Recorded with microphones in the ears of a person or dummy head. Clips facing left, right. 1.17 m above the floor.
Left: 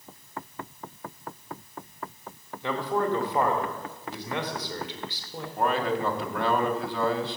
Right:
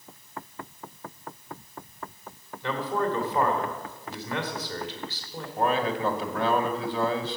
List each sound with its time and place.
2.6 s a man speaking: 15° left (ahead or behind), 2.5 m
5.6 s a man speaking: centre (ahead or behind), 1.8 m